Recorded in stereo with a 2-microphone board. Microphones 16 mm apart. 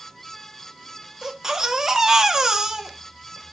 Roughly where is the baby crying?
Right.